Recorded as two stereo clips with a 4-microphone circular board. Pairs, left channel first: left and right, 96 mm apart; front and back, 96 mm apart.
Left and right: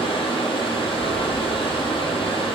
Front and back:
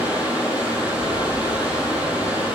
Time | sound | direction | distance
0.0 | running water | 105° left | 1.3 m